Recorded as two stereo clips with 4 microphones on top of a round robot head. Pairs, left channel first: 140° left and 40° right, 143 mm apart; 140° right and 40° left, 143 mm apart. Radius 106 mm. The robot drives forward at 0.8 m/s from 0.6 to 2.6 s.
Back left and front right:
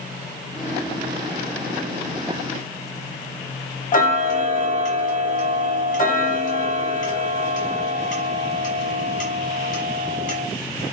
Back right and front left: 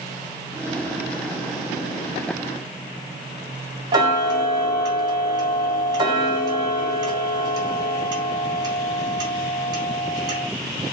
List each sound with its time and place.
3.9 s ticking: 105° left, 0.7 m